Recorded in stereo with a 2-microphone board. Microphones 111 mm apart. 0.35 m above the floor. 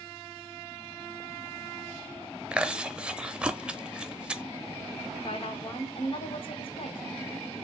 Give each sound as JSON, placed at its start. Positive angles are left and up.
{"t": 2.5, "sound": "chewing", "side_deg": -10, "distance_m": 0.6}
{"t": 5.2, "sound": "a woman speaking", "side_deg": 55, "distance_m": 1.7}